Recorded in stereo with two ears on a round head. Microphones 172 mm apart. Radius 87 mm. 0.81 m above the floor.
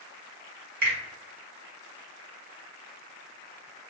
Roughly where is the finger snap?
Right.